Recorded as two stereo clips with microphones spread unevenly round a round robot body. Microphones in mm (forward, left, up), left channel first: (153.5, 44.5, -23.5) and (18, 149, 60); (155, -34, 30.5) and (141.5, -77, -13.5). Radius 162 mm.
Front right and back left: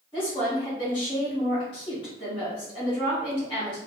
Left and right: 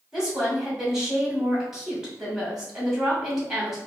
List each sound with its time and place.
0.1 s a woman speaking: 75° right, 2.0 m